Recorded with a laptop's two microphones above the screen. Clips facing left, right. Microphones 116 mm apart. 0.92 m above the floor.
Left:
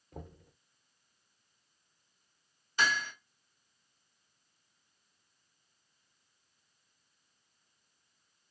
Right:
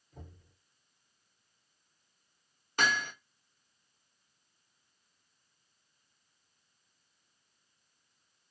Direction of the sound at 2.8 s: 55° right (ahead or behind).